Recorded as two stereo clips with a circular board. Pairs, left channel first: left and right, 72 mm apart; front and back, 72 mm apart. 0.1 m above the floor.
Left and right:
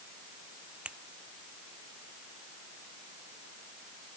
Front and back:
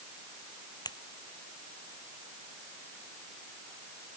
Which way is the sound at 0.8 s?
15° right.